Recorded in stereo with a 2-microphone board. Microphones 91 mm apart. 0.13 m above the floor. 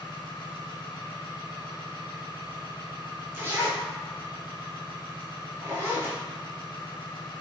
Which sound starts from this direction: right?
A zipper, at 3.3 s.